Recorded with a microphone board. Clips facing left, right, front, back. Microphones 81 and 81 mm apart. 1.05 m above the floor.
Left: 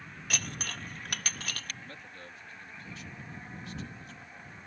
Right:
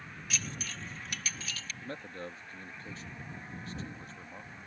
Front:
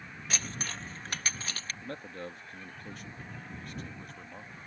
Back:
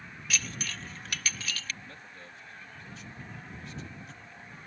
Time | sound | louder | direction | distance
0.3 | dishes clattering | left 3 dB, back 1 dB | 55° left | ?
1.8 | a man speaking | right 6 dB, front 7 dB | 35° right | ?